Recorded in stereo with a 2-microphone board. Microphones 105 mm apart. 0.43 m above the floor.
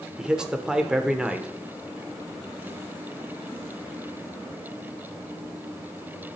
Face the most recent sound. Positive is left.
turn(degrees=-5)  # may be behind; listen again after turning